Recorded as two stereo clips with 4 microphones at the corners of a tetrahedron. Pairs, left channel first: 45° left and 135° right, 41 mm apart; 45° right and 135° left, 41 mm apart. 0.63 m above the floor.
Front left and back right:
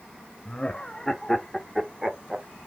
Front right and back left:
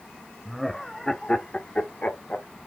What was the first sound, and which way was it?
Laughter, 50° left.